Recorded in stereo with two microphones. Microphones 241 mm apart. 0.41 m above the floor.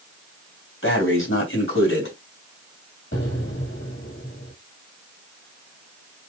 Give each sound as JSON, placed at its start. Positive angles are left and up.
{"t": 0.8, "sound": "breathing", "side_deg": 60, "distance_m": 3.0}
{"t": 3.1, "sound": "an explosion", "side_deg": 60, "distance_m": 3.0}